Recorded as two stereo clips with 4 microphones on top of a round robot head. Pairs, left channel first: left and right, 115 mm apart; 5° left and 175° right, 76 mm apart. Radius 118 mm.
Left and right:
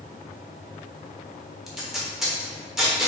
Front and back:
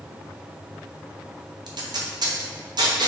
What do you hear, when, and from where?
1.7 s tape being pulled: straight behind, 1.0 m